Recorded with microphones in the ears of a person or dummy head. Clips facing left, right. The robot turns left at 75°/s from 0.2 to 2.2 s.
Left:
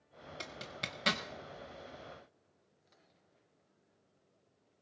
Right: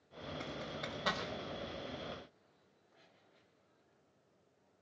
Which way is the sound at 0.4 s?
40° left (ahead or behind).